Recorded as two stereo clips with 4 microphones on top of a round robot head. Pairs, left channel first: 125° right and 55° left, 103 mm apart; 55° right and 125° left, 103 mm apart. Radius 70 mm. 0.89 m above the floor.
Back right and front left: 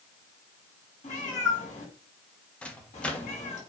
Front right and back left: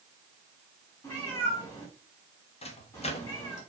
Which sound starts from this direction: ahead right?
A microwave, at 2.6 s.